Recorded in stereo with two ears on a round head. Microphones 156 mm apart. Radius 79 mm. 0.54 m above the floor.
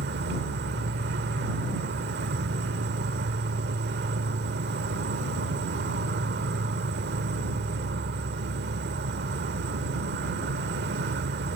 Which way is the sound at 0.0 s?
65° right (ahead or behind).